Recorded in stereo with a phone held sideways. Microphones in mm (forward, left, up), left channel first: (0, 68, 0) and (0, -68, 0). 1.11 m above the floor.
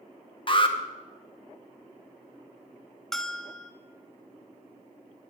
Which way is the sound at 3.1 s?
Centre (ahead or behind).